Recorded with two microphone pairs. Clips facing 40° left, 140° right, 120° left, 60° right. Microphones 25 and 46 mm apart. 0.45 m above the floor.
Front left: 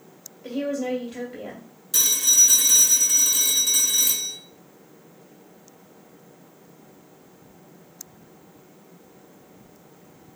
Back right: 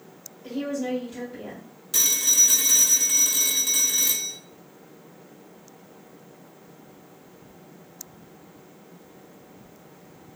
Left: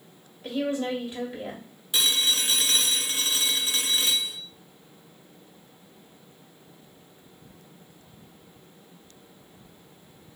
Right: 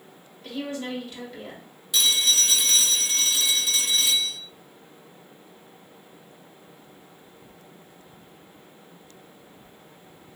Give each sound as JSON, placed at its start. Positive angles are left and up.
{"t": 0.4, "sound": "a woman speaking", "azimuth_deg": 70, "distance_m": 1.4}
{"t": 1.9, "sound": "a phone ringing", "azimuth_deg": 145, "distance_m": 0.8}